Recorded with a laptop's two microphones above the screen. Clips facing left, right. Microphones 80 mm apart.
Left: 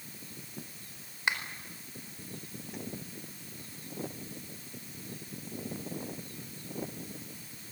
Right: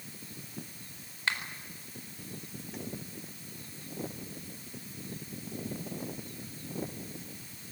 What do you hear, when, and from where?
1.3 s a finger snap: 15° left (ahead or behind), 4.5 m